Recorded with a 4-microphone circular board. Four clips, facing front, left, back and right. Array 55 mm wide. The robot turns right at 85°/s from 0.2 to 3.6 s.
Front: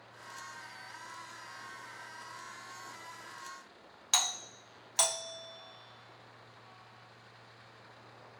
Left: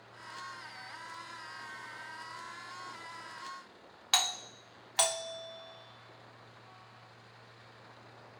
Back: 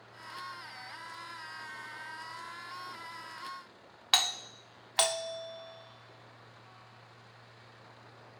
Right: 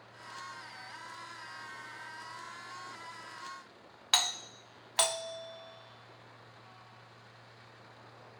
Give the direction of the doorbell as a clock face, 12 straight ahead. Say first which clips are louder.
Even, back 4 dB; 5 o'clock.